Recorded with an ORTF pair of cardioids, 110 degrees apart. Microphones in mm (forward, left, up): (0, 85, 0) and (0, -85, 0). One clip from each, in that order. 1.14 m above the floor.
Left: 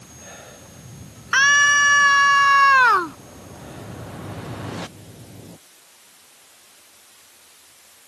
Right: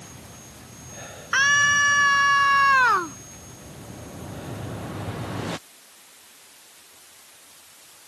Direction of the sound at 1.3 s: 30° left.